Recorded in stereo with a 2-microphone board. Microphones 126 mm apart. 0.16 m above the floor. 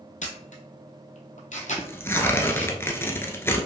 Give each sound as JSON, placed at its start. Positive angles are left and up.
{"t": 0.2, "sound": "a camera shutter", "side_deg": 85, "distance_m": 1.0}
{"t": 1.8, "sound": "tearing paper", "side_deg": 20, "distance_m": 0.7}